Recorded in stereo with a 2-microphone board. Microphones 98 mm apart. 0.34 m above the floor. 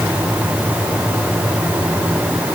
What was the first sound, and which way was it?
Only background noise.